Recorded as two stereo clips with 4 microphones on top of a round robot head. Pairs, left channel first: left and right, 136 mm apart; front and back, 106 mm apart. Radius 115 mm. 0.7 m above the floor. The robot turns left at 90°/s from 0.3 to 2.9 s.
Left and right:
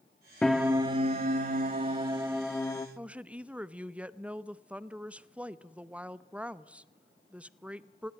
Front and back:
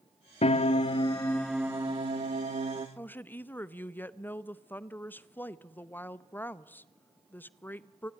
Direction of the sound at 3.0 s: 30° right.